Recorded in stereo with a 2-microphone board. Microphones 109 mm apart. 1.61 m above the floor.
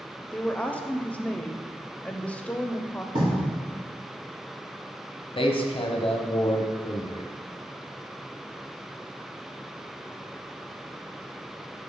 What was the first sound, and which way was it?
A woman speaking, 10° left (ahead or behind).